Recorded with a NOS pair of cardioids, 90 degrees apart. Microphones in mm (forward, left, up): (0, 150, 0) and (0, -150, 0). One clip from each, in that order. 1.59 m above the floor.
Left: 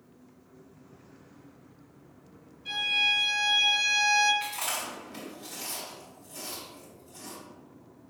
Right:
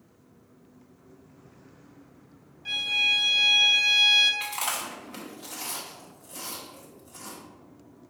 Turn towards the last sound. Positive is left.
turn(degrees=-60)